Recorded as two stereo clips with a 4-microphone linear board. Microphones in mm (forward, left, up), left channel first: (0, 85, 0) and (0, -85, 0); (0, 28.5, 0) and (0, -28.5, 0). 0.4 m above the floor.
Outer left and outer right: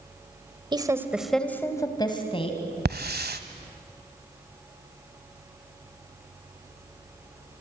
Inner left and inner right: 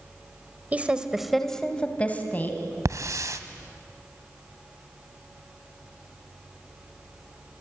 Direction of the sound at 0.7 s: 25° right (ahead or behind).